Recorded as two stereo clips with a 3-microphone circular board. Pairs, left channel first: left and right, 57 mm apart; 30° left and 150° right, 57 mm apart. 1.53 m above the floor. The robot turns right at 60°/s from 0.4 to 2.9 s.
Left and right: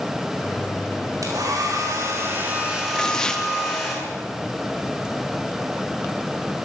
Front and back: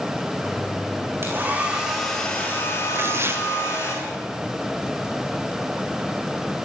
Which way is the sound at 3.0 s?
170° left.